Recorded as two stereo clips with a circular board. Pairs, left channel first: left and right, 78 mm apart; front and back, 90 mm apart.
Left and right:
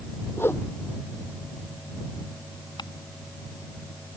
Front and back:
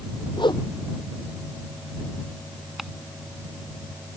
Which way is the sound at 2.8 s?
95° left.